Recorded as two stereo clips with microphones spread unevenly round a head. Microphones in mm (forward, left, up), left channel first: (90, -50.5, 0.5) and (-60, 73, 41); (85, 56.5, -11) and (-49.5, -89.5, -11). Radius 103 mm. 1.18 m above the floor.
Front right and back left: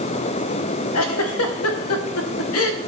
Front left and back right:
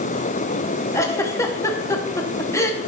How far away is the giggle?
About 0.9 m.